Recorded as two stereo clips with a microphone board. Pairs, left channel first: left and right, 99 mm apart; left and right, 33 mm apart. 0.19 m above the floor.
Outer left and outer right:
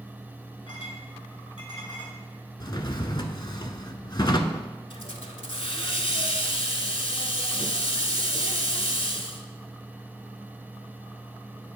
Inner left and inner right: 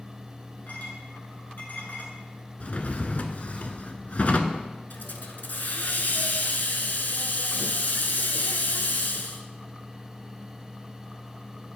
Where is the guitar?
I don't hear a guitar.